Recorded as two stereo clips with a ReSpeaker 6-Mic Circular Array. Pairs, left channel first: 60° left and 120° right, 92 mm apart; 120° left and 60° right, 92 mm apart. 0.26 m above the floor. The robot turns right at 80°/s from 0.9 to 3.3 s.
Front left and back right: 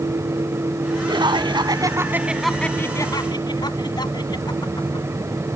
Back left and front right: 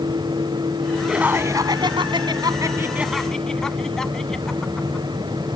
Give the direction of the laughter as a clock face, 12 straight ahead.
5 o'clock.